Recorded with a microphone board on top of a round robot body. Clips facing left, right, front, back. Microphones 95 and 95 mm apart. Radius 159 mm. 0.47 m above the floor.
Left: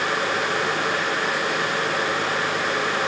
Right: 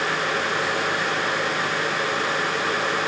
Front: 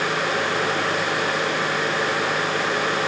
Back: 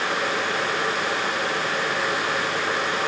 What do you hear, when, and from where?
Only background noise.